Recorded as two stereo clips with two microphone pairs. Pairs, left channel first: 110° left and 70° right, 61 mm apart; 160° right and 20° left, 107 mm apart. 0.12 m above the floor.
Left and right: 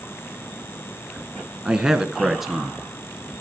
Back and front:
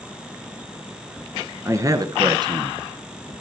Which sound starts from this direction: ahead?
A man speaking, at 1.6 s.